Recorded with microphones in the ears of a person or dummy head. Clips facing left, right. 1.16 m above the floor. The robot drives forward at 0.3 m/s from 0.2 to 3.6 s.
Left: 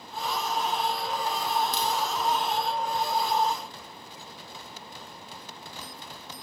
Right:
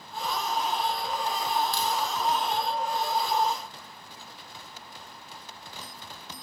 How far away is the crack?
About 0.6 m.